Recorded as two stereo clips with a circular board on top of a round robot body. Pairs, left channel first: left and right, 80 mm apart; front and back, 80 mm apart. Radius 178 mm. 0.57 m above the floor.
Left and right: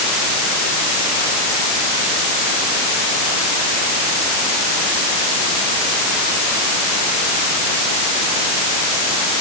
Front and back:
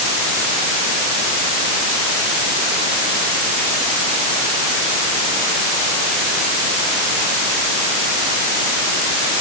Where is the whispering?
I don't hear whispering.